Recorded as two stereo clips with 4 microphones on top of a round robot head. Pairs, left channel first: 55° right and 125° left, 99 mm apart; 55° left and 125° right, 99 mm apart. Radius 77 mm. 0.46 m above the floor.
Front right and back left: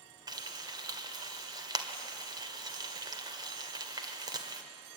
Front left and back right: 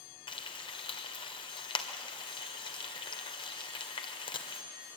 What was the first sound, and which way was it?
Frying, 85° left.